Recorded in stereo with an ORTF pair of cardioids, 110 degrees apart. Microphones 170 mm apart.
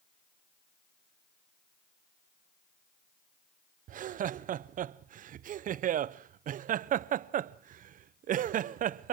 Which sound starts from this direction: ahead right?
Laughter, at 3.9 s.